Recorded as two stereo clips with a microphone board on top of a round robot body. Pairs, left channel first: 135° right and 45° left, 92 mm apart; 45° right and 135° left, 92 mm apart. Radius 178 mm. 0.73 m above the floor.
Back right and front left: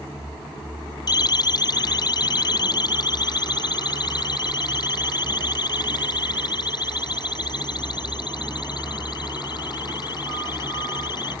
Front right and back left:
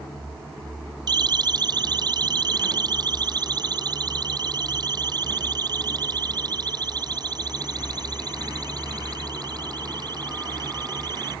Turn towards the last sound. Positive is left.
turn(degrees=180)